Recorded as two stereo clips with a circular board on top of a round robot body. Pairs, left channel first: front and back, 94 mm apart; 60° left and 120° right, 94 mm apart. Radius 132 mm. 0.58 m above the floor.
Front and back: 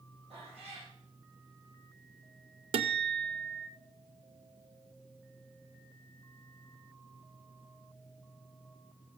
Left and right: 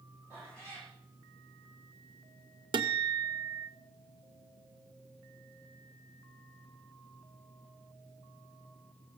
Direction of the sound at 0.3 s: Straight behind.